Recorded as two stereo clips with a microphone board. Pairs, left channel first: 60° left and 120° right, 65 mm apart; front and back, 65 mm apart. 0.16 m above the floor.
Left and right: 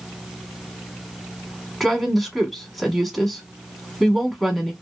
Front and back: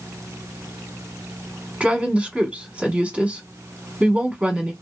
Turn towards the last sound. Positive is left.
turn(degrees=140)